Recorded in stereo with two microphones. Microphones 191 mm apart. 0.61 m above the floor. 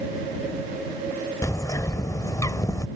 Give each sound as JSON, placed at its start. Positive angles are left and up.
{"t": 1.4, "sound": "a bird", "side_deg": 15}